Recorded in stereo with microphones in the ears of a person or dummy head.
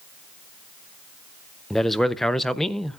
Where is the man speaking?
Centre (ahead or behind), 0.6 m.